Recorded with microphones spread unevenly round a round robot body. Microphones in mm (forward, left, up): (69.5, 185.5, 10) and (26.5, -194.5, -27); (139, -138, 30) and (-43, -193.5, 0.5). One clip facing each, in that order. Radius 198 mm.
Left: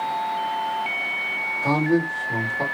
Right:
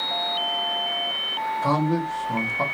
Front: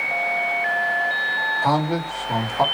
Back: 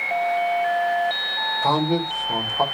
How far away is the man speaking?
About 1.3 m.